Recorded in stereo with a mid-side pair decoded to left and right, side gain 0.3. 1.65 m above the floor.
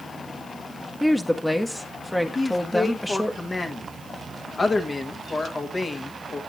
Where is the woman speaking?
15° left, 1.2 m.